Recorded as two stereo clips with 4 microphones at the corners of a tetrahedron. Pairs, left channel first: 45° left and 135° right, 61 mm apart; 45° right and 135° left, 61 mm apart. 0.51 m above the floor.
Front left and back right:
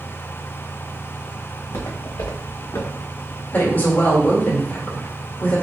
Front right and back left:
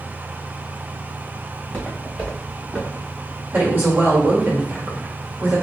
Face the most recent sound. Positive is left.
turn(degrees=85)